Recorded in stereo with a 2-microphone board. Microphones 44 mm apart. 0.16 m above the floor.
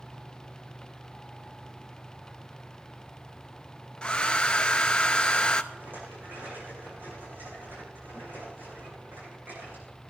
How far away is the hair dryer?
About 0.7 m.